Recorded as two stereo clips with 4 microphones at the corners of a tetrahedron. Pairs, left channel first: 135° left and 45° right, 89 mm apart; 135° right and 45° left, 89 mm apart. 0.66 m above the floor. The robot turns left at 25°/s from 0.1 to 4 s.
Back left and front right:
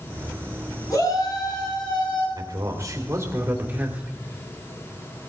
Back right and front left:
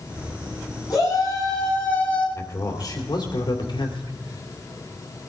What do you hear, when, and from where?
0.9 s a shout: 175° right, 7 m; by 2.3 s 150° left, 7 m
2.4 s a man speaking: 80° right, 2 m; by 4.2 s 125° right, 2 m